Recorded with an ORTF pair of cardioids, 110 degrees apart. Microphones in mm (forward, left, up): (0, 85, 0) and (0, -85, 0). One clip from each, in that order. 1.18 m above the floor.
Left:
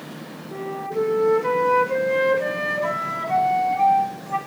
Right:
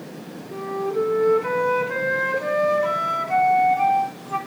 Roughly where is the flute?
Ahead.